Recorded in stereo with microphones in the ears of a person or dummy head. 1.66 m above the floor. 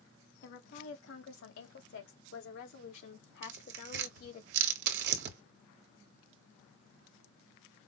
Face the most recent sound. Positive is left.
turn(degrees=-60)  # may be behind; listen again after turning